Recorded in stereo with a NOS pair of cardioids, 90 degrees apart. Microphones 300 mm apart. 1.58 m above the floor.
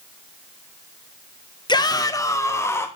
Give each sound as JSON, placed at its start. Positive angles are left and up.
{"t": 1.7, "sound": "a shout", "azimuth_deg": 15, "distance_m": 1.4}